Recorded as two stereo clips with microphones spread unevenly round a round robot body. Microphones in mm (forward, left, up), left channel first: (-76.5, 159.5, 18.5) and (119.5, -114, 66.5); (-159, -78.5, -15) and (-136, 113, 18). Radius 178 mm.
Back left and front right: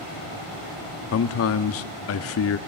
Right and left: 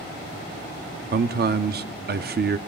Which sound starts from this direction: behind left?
A man speaking, at 1.1 s.